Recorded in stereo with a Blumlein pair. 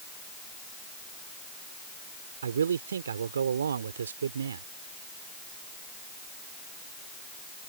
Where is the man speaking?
70° right.